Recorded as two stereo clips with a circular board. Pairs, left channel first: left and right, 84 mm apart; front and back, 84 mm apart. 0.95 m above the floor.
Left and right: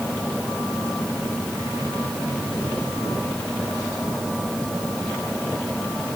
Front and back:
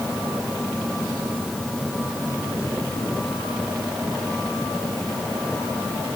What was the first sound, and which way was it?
Only background noise.